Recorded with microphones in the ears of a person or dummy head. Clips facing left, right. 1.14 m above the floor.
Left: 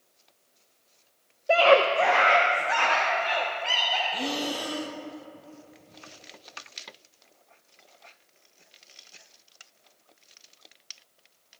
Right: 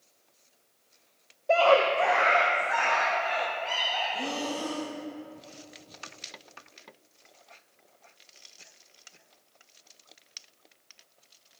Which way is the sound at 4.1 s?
25° left (ahead or behind).